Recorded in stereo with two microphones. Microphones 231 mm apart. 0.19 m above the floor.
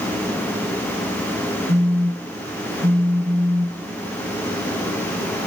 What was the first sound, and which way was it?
A phone buzzing, 20° right (ahead or behind).